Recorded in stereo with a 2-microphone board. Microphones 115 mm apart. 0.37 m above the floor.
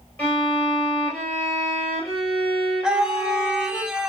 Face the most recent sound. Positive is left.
turn(degrees=-5)  # may be behind; listen again after turning